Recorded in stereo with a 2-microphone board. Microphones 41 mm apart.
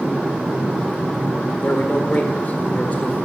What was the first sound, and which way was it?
A man speaking, 40° left (ahead or behind).